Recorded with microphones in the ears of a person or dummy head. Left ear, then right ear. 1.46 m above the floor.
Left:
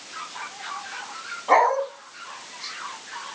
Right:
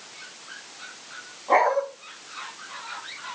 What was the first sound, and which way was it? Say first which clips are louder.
A dog barking: left 2 dB; 65° left (ahead or behind).